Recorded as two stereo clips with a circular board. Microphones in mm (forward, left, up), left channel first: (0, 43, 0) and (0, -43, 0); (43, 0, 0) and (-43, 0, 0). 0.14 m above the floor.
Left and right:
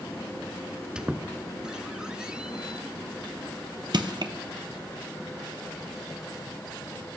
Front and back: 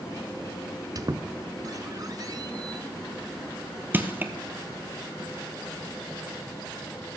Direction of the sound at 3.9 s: 115° right.